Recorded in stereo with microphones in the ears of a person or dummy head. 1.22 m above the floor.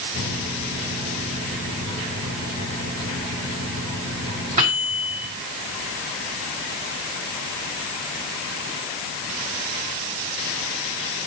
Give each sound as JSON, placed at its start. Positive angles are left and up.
{"t": 0.1, "sound": "a microwave", "side_deg": -45, "distance_m": 6.5}